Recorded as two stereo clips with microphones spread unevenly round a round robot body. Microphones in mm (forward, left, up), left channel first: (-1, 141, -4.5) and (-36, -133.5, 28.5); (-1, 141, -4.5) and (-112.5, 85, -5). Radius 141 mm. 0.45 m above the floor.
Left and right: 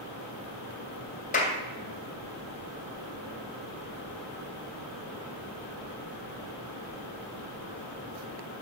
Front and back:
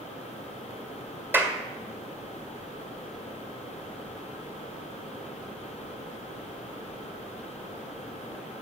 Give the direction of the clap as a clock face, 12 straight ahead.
7 o'clock.